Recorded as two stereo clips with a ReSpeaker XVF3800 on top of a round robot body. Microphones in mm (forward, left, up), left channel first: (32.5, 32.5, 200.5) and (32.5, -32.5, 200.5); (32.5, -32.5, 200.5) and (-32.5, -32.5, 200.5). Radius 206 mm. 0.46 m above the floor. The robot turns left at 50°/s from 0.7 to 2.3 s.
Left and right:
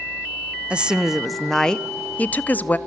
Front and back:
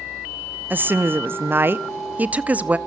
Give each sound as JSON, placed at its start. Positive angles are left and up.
{"t": 0.7, "sound": "a woman speaking", "azimuth_deg": -145, "distance_m": 0.9}